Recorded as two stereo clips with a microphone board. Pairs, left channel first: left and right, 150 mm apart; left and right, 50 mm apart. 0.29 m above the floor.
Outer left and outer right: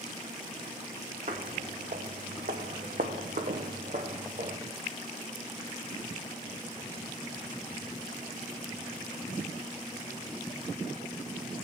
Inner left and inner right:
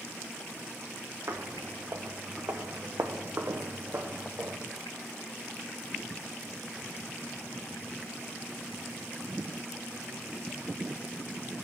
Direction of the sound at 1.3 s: 65° right (ahead or behind).